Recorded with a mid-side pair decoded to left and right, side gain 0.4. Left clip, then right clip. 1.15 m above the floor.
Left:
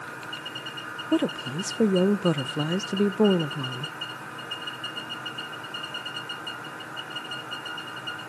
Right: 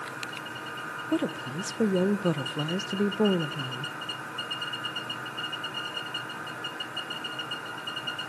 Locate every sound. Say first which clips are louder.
1.1 s a woman speaking: left 5 dB; 30° left, 0.5 m